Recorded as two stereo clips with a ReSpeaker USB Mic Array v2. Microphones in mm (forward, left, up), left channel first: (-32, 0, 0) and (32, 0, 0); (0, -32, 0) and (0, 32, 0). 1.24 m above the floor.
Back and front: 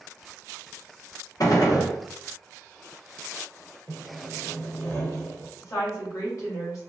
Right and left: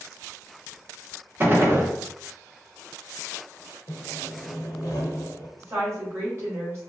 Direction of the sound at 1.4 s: 145° left.